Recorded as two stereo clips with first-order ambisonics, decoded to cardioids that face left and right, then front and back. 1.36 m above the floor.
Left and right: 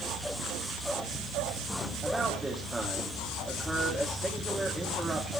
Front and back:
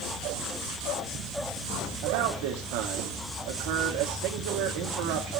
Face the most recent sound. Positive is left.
turn(degrees=-170)